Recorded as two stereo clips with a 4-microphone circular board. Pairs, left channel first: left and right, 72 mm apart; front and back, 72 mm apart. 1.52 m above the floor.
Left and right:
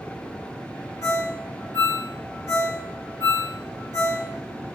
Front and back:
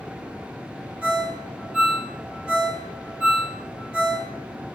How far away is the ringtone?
About 0.7 m.